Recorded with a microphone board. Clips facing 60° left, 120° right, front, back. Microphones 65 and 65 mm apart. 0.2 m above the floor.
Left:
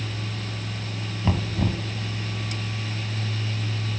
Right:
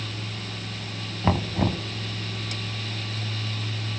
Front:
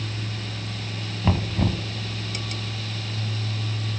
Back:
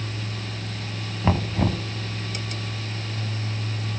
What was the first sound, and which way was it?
Knocking, 120° right.